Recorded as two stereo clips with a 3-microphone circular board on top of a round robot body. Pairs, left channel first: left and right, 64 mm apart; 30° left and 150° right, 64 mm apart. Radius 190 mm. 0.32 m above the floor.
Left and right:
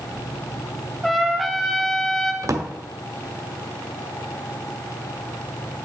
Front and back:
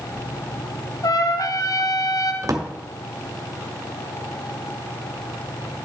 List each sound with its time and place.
1.0 s a trumpet: straight ahead, 0.8 m
2.4 s a drawer: 120° right, 1.2 m